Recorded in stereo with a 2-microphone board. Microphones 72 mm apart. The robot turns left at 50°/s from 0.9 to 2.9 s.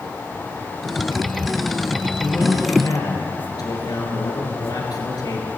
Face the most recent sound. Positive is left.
turn(degrees=105)